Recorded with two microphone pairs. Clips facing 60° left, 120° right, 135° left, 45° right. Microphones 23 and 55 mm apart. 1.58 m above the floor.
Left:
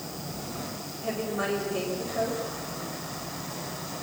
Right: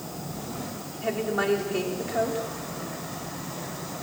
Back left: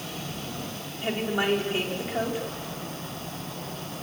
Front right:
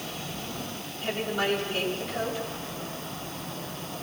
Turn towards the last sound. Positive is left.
turn(degrees=-155)